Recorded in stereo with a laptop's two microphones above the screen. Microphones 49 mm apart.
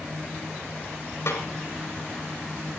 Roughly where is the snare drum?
Left.